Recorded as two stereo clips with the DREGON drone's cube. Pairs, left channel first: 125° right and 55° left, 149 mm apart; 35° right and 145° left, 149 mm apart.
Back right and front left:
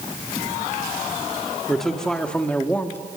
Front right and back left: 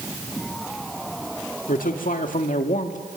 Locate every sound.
1.7 s a man speaking: 35° right, 2 m; by 3.0 s 50° right, 1.6 m